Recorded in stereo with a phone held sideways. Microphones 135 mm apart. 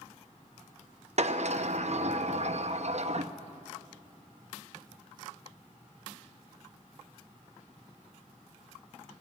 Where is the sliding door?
55° right (ahead or behind), 0.8 m.